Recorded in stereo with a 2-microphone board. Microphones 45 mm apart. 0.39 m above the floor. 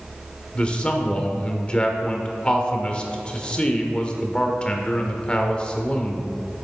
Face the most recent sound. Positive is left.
turn(degrees=25)  # may be behind; listen again after turning